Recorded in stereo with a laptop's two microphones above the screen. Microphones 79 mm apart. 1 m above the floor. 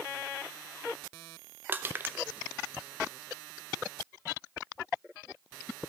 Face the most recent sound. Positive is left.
turn(degrees=-25)  # may be behind; listen again after turning